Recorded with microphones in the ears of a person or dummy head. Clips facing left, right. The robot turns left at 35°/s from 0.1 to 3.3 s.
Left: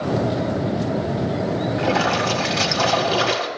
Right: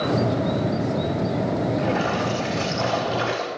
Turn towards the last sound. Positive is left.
turn(degrees=65)